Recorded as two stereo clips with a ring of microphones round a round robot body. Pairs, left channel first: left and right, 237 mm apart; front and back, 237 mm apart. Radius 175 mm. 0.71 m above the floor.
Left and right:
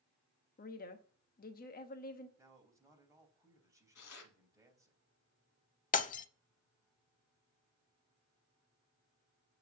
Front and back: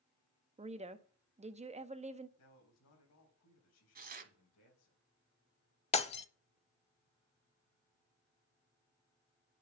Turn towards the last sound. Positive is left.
turn(degrees=50)